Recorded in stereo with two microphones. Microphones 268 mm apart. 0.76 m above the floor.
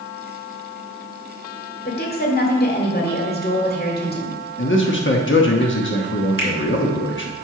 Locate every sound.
1.9 s a woman speaking: 35° left (ahead or behind), 1.6 m
4.6 s a man speaking: 45° left (ahead or behind), 1.0 m
6.4 s a finger snap: 50° left (ahead or behind), 2 m